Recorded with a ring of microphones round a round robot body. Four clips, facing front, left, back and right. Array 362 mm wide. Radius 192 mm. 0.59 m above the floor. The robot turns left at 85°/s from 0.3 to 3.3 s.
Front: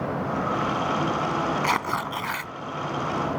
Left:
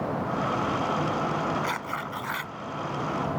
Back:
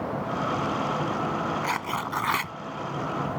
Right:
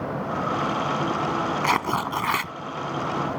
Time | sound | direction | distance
1.6 | tearing paper | 60° right | ?